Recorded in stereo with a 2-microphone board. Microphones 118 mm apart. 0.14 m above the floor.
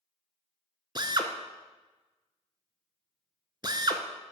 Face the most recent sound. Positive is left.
turn(degrees=-40)  # may be behind; listen again after turning